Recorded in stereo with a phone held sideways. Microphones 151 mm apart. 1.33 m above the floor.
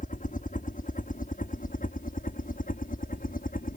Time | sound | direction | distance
0.0 | a helicopter | 60° left (ahead or behind) | ?